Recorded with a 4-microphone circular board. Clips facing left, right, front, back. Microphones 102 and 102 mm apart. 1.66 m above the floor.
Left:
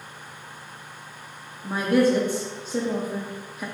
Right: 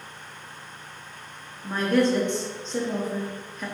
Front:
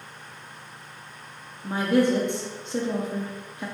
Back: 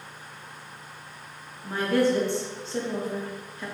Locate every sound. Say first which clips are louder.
1.6 s a woman speaking: left 2 dB, front 2 dB; 30° left, 0.5 m